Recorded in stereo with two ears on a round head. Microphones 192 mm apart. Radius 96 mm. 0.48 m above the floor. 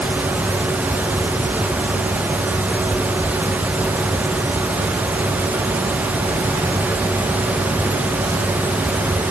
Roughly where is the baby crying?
I don't hear a baby crying.